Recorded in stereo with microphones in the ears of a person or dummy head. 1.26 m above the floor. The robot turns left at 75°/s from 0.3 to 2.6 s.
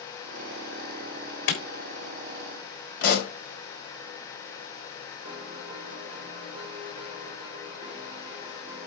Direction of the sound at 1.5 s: 70° left (ahead or behind).